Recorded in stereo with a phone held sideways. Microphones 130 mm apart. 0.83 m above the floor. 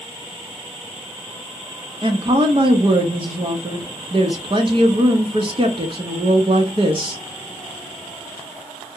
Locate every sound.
2.0 s a woman speaking: 40° right (ahead or behind), 0.8 m